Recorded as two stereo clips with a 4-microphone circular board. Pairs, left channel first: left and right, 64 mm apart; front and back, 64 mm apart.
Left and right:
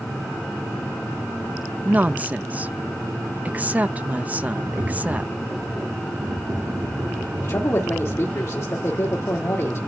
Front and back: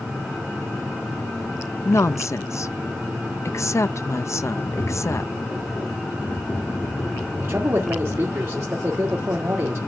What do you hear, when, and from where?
1.9 s a woman speaking: 30° right, 0.7 m
4.6 s tapping: 55° right, 7 m
7.4 s a man speaking: 135° left, 1.9 m